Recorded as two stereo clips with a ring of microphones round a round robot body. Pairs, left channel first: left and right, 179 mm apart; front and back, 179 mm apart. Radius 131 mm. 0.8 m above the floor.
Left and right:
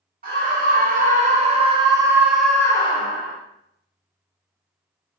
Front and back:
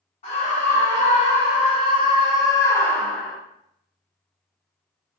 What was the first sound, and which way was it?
A scream, 60° right.